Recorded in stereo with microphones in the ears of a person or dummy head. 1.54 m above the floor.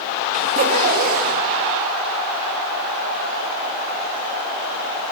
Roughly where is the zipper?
Right.